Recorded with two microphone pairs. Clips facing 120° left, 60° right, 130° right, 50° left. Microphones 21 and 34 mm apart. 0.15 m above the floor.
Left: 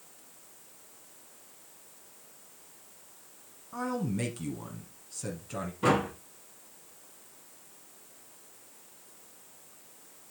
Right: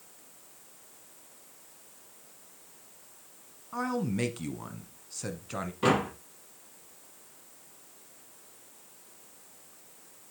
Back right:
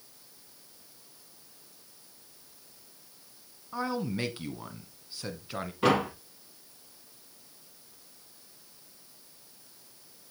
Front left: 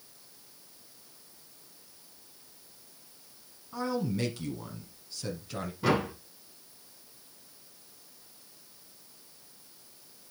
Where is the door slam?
120° right, 3.5 m.